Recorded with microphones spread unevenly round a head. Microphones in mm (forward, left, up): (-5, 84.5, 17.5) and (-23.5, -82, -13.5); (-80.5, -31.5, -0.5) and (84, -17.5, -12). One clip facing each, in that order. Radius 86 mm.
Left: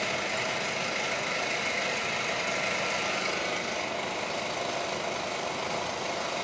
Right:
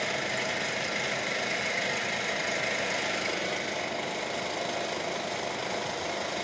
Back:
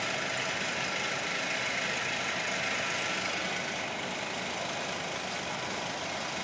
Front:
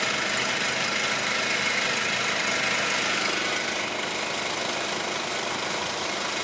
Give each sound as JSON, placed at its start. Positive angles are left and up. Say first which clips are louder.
{"t": 0.0, "sound": "an engine running", "louder": "even, front 5 dB", "azimuth_deg": -10, "distance_m": 1.2}